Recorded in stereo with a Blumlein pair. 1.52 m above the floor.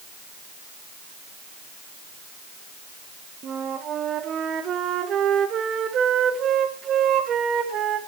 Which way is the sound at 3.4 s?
25° right.